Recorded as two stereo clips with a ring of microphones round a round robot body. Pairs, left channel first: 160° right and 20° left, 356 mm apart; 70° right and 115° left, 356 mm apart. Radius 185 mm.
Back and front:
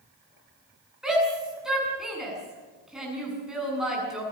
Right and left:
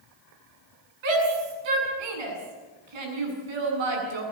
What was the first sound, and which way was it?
A shout, 110° left.